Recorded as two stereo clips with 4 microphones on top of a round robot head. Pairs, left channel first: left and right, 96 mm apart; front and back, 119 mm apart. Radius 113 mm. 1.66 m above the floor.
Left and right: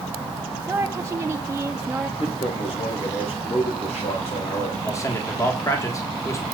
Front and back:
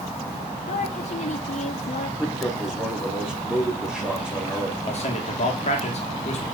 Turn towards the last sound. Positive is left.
turn(degrees=30)